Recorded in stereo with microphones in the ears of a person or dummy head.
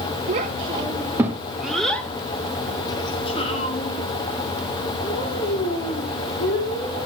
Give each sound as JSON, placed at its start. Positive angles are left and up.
{"t": 0.3, "sound": "a child speaking", "side_deg": -40, "distance_m": 1.3}